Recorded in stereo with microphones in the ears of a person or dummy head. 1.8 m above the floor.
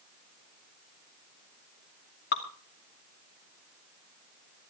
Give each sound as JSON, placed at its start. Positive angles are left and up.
{"t": 2.3, "sound": "dripping", "side_deg": 45, "distance_m": 1.3}